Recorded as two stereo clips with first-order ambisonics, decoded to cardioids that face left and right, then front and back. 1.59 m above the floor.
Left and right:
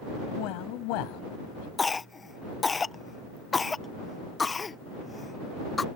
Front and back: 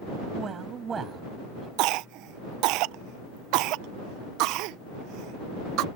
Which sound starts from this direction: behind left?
A man speaking, at 0.4 s.